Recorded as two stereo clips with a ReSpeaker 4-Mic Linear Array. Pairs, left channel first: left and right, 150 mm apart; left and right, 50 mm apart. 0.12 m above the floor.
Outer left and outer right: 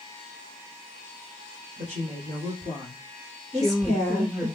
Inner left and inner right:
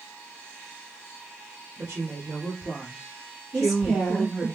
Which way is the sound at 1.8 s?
50° right (ahead or behind).